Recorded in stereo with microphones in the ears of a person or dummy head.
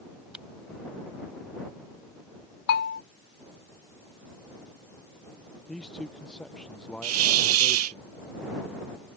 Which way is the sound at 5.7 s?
5° left (ahead or behind).